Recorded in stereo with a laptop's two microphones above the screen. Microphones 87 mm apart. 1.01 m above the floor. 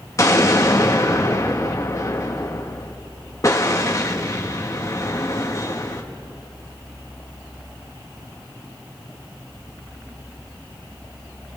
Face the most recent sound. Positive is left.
turn(degrees=35)  # may be behind; listen again after turning